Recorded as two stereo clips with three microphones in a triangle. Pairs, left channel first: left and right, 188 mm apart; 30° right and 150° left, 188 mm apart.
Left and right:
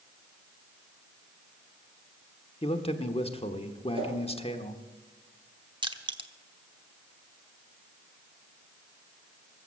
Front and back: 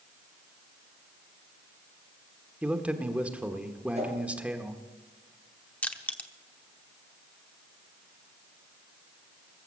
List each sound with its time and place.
2.6 s a man speaking: 75° left, 1.1 m
3.9 s a whoosh: 155° right, 3 m
5.8 s crushing: 105° right, 0.9 m